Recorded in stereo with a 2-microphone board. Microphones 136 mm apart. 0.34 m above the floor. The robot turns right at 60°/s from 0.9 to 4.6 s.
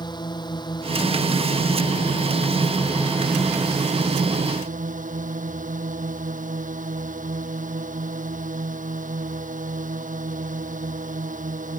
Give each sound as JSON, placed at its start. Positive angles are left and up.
{"t": 0.0, "sound": "a drone", "azimuth_deg": 35}